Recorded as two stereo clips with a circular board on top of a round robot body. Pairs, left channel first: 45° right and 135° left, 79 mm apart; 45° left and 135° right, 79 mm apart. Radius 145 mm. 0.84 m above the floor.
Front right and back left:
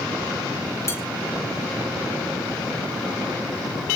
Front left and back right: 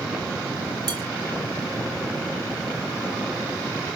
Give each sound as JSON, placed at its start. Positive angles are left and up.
{"t": 0.9, "sound": "dishes clattering", "azimuth_deg": -100, "distance_m": 3.5}